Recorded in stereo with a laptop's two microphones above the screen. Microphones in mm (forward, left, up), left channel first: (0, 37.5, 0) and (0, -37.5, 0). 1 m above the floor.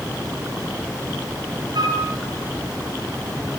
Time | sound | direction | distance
1.8 | a flute | 65° right (ahead or behind) | 4.5 m